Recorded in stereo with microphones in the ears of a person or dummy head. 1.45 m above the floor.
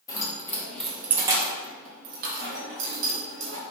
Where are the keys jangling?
25° left (ahead or behind), 1.0 m; by 3.6 s 75° right (ahead or behind), 1.5 m.